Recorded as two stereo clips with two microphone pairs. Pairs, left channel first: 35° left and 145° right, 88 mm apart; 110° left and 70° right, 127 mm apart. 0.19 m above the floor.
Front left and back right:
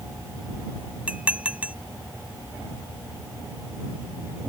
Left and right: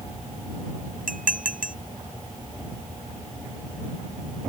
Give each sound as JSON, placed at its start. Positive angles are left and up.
{"t": 1.1, "sound": "dishes clattering", "azimuth_deg": -70}